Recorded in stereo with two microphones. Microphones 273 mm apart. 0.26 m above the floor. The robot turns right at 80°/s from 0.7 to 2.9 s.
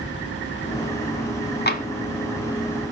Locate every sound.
1.7 s tapping: 40° left (ahead or behind), 0.6 m; by 1.9 s 25° left (ahead or behind), 0.6 m